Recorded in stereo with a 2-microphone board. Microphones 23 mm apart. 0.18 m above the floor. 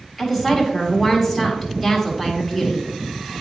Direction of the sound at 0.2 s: Centre (ahead or behind).